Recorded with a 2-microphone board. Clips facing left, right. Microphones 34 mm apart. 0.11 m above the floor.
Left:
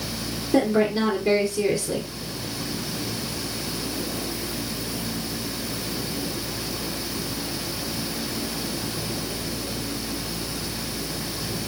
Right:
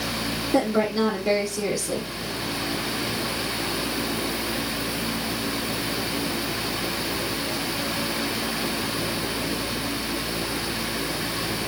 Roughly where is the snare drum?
No snare drum in this recording.